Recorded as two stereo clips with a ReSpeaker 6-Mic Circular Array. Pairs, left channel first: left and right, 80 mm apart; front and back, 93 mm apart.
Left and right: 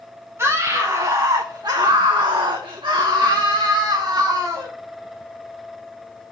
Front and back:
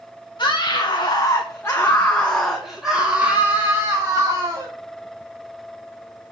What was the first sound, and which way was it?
A scream, 35° right.